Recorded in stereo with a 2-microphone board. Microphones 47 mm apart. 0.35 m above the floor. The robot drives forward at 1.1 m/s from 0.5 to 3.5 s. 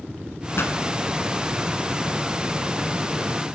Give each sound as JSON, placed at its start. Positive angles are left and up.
{"t": 0.6, "sound": "a pop", "side_deg": 60, "distance_m": 0.9}